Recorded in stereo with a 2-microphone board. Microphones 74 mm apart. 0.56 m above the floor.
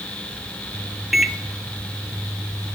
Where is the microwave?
5° right (ahead or behind), 0.6 m.